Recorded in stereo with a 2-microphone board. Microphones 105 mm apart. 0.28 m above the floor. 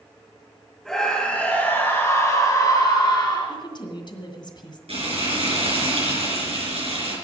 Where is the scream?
5° left (ahead or behind), 1.8 m; by 3.6 s 50° left (ahead or behind), 2.5 m.